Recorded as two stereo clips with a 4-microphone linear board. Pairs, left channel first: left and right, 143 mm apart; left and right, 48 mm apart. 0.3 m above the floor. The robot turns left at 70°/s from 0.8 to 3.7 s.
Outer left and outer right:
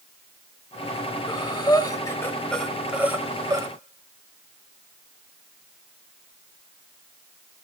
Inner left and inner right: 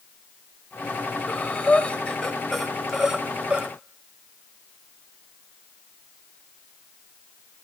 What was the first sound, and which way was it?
Breathing, 30° left (ahead or behind).